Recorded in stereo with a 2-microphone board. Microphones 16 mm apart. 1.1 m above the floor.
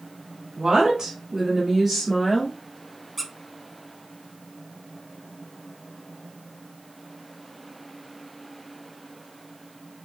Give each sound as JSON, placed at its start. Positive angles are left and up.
{"t": 0.6, "sound": "a woman speaking", "side_deg": -55, "distance_m": 1.9}
{"t": 3.2, "sound": "a squeak", "side_deg": -5, "distance_m": 0.6}